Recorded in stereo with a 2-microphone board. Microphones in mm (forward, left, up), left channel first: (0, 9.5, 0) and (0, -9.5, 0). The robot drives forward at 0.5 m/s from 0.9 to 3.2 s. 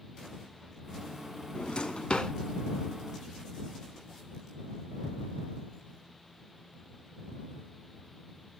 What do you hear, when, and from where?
1.6 s a drawer: 55° left (ahead or behind), 0.9 m; by 2.3 s 45° left (ahead or behind), 1.1 m